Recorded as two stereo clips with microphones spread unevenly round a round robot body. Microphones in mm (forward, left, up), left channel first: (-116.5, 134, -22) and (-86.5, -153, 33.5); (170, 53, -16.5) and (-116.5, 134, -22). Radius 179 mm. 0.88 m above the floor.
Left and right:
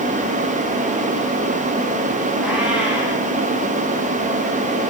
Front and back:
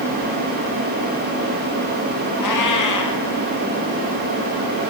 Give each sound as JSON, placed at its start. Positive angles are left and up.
{"t": 2.4, "sound": "a cat meowing", "azimuth_deg": 0, "distance_m": 5.5}